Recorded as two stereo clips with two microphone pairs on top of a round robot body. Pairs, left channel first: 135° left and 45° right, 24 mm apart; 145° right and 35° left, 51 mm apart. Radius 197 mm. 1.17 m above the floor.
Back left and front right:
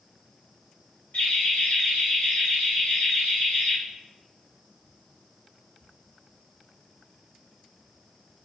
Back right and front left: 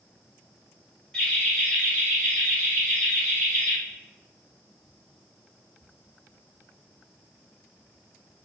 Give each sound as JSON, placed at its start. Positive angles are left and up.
{"t": 1.1, "sound": "laughter", "azimuth_deg": 140, "distance_m": 0.7}